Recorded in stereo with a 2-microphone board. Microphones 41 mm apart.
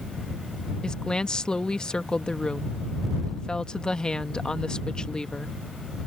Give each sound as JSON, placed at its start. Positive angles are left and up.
{"t": 0.8, "sound": "a woman speaking", "side_deg": 20}